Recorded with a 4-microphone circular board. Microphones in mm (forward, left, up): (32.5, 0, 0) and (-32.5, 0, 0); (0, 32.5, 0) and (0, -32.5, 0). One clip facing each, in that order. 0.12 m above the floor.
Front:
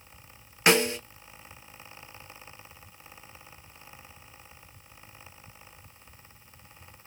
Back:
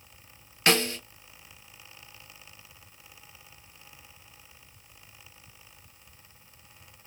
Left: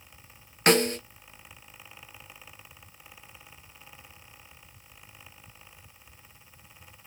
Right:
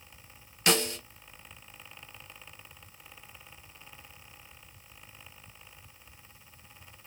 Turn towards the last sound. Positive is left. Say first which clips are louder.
# front 3 dB, left 6 dB
turn(degrees=65)